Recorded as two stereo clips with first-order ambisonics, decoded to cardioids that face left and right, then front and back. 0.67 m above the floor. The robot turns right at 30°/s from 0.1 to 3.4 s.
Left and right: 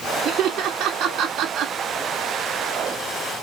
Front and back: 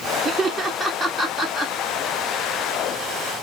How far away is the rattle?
I don't hear a rattle.